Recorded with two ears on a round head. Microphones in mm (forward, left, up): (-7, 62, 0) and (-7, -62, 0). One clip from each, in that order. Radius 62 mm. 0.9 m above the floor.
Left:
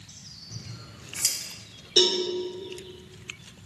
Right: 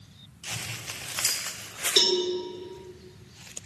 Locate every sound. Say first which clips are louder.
0.5 s scissors: right 9 dB; 10° left (ahead or behind), 1.3 m
2.0 s a cowbell: left 1 dB; 40° right (ahead or behind), 2.5 m